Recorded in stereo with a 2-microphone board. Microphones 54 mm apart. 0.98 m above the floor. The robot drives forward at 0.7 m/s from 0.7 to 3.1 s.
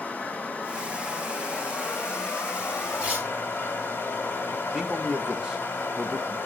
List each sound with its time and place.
0.0 s running water: 25° left (ahead or behind), 1.5 m; by 6.5 s 35° left (ahead or behind), 1.0 m
3.0 s tearing paper: 15° right (ahead or behind), 2 m
4.7 s a man speaking: 15° right (ahead or behind), 0.7 m